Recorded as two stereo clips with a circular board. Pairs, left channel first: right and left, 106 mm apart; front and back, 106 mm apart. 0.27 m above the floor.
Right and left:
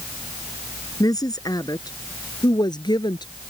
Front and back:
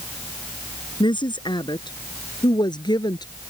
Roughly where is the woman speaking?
Ahead right.